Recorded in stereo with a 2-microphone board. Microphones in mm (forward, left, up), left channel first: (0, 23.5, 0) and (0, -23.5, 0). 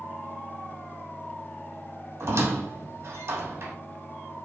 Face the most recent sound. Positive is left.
turn(degrees=-70)  # may be behind; listen again after turning